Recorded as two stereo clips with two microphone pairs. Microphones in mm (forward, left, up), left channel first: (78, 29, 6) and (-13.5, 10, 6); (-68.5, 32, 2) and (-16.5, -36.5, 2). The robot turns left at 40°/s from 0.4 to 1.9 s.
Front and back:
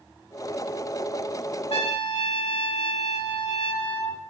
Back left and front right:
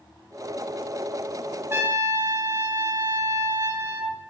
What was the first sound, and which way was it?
A trumpet, 5° left.